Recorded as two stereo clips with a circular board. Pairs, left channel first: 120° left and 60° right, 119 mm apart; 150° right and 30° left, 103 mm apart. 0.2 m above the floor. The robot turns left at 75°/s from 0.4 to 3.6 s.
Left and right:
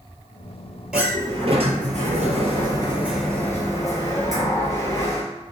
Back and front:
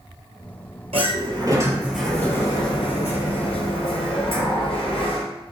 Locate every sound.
0.9 s a sliding door: 20° left, 2 m; by 5.2 s straight behind, 2 m